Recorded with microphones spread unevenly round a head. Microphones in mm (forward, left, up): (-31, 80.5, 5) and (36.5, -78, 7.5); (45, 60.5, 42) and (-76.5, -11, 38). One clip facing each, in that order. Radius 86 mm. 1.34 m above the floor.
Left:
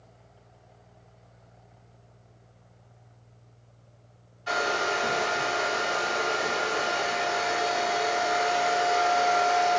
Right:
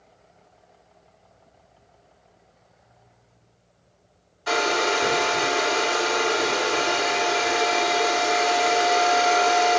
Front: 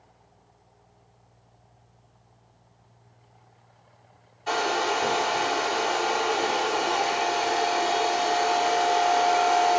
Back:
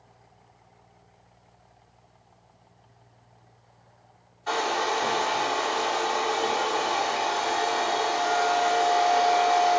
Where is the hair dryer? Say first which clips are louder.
Right 5 dB, front 1 dB; 45° right, 2 m.